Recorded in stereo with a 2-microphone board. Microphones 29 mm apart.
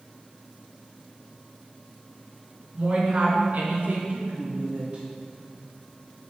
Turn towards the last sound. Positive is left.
turn(degrees=-45)  # may be behind; listen again after turning